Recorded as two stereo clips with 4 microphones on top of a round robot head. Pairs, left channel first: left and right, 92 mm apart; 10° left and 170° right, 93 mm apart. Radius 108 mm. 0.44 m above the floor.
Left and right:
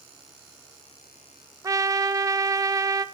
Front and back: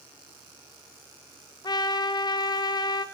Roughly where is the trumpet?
Ahead right.